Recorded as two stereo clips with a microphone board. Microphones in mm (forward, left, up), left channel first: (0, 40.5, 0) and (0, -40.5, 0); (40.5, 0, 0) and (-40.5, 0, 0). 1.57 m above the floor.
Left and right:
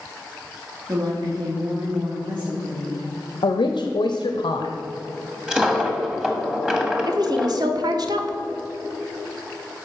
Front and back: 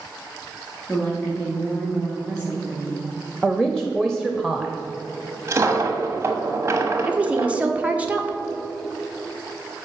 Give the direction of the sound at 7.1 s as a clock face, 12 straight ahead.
4 o'clock.